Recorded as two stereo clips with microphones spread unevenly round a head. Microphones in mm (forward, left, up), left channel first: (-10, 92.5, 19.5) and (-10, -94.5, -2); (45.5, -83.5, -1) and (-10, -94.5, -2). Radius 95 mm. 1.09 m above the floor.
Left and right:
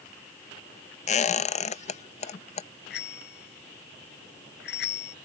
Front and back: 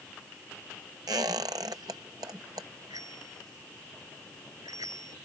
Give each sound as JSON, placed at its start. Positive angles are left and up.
{"t": 1.1, "sound": "a squeak", "azimuth_deg": 145}
{"t": 2.9, "sound": "a bicycle bell", "azimuth_deg": 125}